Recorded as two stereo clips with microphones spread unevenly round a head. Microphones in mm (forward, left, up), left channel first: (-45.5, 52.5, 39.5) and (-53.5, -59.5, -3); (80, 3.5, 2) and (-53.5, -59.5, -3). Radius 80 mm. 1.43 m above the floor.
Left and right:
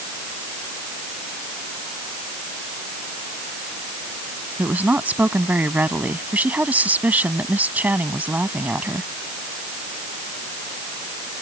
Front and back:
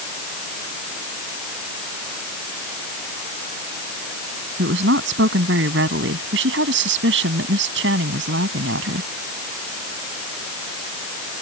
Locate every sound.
4.6 s a woman speaking: 175° right